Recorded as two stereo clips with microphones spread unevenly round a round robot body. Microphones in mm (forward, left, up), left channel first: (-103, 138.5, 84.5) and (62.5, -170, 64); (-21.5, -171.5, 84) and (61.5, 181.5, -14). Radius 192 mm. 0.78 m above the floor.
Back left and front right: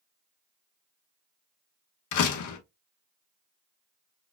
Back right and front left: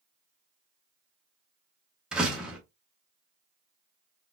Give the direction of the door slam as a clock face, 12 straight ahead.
7 o'clock.